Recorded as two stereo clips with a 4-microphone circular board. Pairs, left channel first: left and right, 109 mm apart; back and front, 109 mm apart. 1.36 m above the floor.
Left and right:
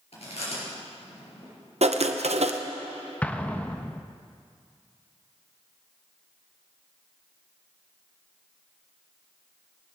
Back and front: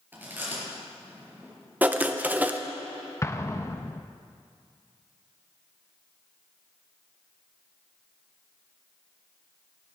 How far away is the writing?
About 0.7 m.